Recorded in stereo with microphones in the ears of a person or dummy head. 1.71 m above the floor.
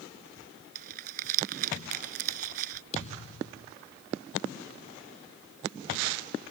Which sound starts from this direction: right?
Crumpling, at 0.8 s.